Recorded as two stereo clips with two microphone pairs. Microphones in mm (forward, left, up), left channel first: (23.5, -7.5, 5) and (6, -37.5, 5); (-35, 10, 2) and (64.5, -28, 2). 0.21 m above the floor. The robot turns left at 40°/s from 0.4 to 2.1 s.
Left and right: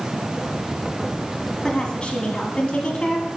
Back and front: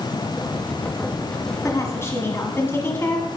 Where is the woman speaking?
120° left, 1.4 m; by 3.3 s 105° left, 1.4 m.